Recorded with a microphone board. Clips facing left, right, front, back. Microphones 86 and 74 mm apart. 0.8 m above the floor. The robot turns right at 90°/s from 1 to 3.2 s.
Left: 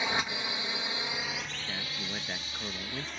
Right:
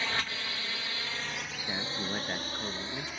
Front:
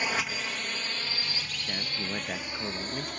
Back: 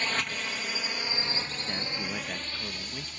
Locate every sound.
0.0 s a drone: 55° left; by 3.2 s straight ahead
1.7 s a man speaking: 100° right; by 3.1 s 30° left